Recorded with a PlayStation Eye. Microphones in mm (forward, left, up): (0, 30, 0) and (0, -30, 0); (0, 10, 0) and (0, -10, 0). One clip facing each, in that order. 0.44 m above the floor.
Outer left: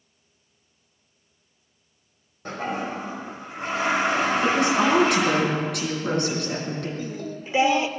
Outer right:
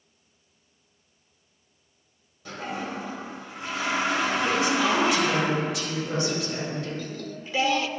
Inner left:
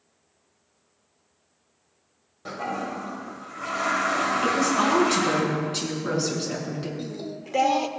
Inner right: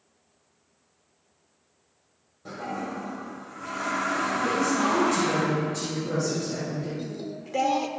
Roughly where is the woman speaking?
Left.